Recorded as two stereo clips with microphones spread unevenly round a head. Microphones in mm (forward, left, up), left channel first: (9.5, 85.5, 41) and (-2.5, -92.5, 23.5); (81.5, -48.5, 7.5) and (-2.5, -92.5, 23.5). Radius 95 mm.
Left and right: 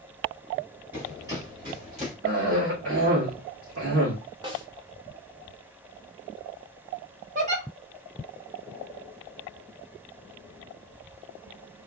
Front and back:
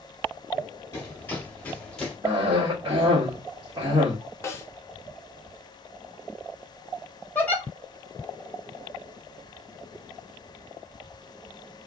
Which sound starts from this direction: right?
A cough, at 2.2 s.